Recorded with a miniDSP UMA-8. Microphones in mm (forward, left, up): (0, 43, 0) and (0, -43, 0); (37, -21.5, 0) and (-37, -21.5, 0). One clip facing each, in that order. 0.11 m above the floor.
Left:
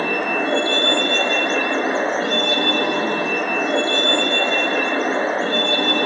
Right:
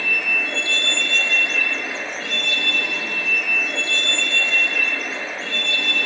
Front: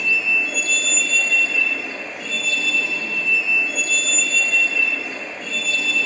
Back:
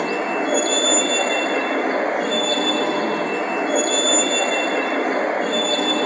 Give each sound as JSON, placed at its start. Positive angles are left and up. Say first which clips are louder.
{"t": 0.0, "sound": "a vehicle", "louder": "left 6 dB, back 3 dB", "azimuth_deg": 140}